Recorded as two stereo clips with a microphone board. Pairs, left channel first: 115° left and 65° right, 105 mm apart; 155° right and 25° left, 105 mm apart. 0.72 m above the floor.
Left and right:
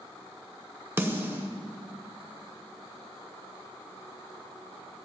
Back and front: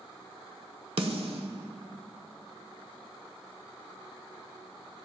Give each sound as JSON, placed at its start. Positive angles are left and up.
{"t": 1.0, "sound": "a snare drum", "azimuth_deg": 0, "distance_m": 1.1}